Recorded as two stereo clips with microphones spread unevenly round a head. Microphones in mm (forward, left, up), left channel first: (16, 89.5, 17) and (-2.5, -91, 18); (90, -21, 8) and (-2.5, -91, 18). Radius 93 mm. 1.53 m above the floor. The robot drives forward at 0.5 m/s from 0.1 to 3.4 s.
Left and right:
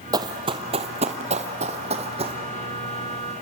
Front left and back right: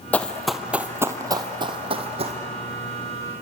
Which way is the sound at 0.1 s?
40° right.